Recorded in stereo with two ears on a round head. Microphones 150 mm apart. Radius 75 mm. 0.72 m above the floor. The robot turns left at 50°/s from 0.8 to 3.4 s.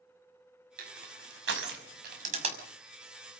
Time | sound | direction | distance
0.8 | crushing | 55° right (ahead or behind) | 5.5 m